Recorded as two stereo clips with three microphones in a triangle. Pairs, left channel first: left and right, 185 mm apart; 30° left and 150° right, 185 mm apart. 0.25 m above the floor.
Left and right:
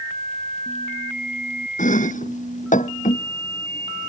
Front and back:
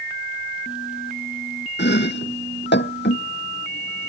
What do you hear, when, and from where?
1.8 s chopping: 45° left